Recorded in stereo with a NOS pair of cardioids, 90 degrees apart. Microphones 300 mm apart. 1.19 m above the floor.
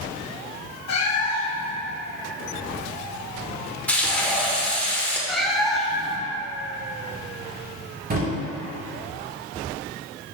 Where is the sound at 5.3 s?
Straight ahead, 1.2 m.